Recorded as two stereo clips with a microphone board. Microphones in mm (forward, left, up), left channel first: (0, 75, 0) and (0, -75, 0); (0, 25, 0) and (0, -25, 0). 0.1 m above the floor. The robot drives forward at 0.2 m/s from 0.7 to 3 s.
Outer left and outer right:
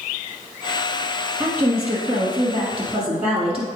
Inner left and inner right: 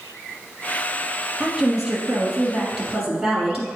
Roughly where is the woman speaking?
Centre.